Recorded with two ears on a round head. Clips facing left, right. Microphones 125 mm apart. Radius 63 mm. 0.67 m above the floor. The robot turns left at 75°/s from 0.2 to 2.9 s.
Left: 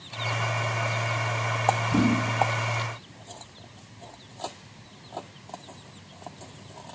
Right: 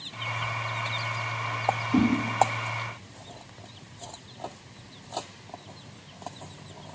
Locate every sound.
1.9 s a whoosh: 15° right (ahead or behind), 1.3 m; by 2.0 s 5° right (ahead or behind), 1.3 m